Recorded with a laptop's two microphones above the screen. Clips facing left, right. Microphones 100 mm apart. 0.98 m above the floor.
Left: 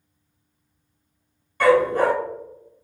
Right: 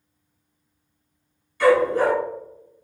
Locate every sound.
1.6 s a dog barking: 50° left (ahead or behind), 1.3 m